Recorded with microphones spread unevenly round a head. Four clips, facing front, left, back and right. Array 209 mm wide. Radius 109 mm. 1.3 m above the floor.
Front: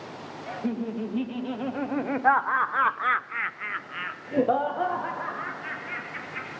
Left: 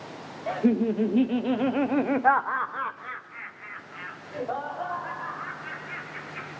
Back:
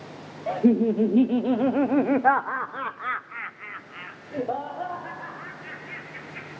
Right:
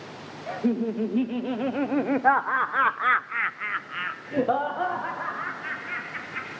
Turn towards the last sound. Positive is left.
turn(degrees=-35)